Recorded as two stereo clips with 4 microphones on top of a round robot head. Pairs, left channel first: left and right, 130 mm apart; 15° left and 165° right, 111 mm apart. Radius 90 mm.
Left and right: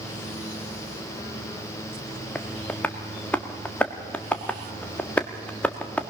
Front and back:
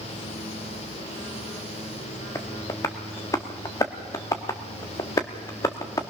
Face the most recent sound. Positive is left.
turn(degrees=25)